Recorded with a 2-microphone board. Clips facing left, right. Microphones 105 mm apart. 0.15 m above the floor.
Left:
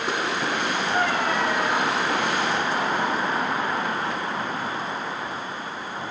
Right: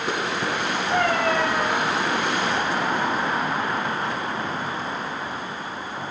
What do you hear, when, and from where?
0.9 s a cat meowing: 75° right (ahead or behind), 5 m